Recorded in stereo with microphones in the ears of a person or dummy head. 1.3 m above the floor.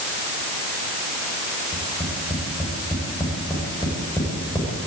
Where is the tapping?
15° left (ahead or behind), 6 m.